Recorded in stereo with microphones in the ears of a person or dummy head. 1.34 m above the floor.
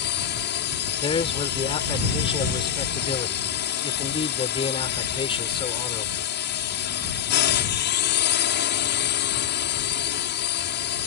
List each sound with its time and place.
0.0 s a drone: 50° left (ahead or behind)
1.0 s a man speaking: 25° left (ahead or behind)